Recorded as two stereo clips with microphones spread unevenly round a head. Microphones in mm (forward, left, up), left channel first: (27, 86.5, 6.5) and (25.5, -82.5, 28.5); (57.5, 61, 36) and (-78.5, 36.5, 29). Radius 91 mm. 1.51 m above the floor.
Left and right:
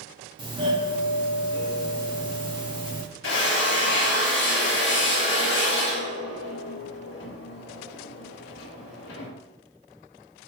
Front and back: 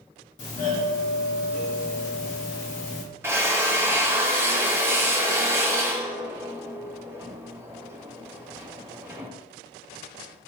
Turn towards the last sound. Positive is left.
turn(degrees=115)